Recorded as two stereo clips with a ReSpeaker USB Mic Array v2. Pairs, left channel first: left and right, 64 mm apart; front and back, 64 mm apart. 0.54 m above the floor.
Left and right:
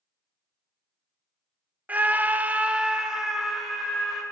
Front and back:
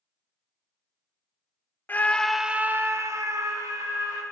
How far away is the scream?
About 0.8 m.